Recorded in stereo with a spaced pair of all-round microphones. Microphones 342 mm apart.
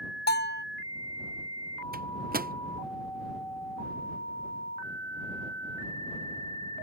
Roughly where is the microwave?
Right.